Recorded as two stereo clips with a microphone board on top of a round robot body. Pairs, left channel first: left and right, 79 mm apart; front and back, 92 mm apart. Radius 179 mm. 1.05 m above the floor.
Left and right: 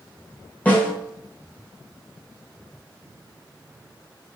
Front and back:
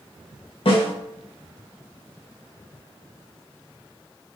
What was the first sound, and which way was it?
A snare drum, 15° left.